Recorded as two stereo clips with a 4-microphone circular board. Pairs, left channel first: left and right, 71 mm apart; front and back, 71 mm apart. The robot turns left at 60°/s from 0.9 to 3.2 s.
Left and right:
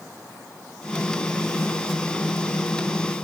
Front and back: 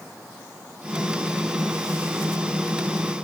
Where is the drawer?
No drawer in this recording.